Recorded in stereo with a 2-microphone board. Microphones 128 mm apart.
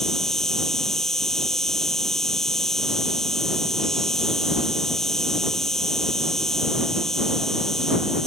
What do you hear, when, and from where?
0.0 s an insect: 5° left (ahead or behind)